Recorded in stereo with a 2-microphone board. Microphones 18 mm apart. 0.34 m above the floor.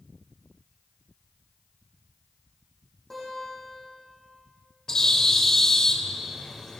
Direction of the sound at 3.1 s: 15° left (ahead or behind).